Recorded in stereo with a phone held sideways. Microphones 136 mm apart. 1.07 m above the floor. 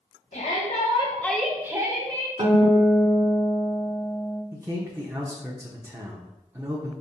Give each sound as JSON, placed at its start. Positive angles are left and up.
{"t": 0.3, "sound": "a shout", "side_deg": 70, "distance_m": 1.0}
{"t": 2.4, "sound": "a guitar", "side_deg": -40, "distance_m": 0.8}
{"t": 4.5, "sound": "a man speaking", "side_deg": -20, "distance_m": 0.6}